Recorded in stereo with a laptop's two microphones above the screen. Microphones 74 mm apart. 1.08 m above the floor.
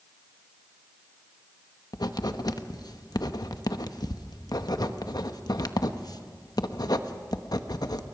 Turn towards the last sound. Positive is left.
turn(degrees=65)  # may be behind; listen again after turning